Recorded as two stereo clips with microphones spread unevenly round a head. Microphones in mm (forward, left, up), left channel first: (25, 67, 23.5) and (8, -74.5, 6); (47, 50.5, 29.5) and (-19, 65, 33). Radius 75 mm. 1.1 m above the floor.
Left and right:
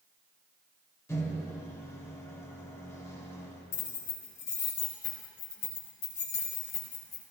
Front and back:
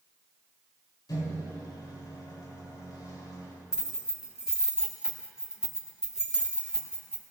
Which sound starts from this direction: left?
Keys jangling, at 3.7 s.